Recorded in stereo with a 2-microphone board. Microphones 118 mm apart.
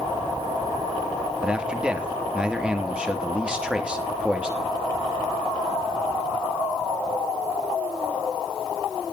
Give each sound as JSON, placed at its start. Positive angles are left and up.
{"t": 1.4, "sound": "a man speaking", "side_deg": -5, "distance_m": 3.0}